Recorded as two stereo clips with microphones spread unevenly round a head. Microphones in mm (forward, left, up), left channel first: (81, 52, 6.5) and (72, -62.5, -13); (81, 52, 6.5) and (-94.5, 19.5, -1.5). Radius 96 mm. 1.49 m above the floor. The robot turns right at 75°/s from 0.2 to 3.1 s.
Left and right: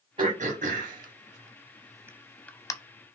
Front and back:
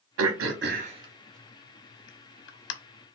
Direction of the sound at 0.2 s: 160° right.